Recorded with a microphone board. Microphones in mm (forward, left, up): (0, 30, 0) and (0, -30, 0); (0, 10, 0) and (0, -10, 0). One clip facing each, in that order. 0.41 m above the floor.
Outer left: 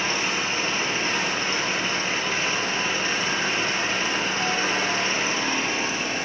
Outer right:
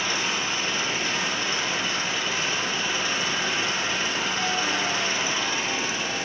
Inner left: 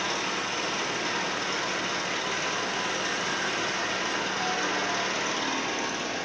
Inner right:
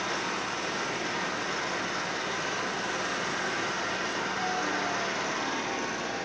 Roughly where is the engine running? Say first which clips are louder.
Outer left 2 dB, inner left 2 dB; left.